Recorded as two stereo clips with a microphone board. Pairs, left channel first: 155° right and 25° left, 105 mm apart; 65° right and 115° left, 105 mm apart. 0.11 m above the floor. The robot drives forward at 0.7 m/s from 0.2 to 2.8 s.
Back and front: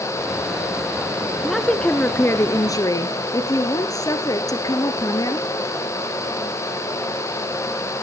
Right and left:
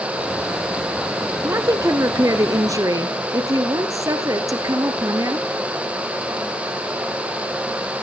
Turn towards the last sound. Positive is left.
turn(degrees=160)